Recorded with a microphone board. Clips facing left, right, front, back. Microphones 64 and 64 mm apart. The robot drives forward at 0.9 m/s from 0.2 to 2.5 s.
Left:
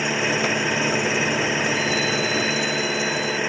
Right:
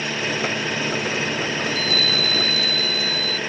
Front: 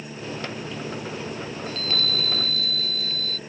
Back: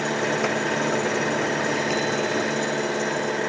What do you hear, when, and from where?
0.0 s an engine running: 165° left
1.7 s a chime: 105° right; by 3.4 s 110° right